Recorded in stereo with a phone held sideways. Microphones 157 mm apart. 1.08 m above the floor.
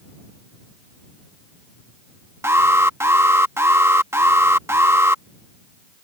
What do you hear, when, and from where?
2.4 s an alarm: 15° right (ahead or behind)